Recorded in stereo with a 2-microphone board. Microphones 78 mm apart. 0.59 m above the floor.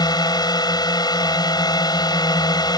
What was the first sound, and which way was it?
A drone, 60° left (ahead or behind).